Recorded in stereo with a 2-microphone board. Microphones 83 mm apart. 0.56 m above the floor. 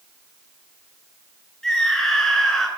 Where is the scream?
5° left (ahead or behind), 9.5 m.